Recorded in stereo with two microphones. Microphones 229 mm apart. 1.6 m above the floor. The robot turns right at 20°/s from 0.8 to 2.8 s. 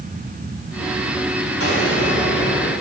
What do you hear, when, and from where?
1.6 s an explosion: 70° left (ahead or behind), 4 m; by 2.7 s 80° left, 4 m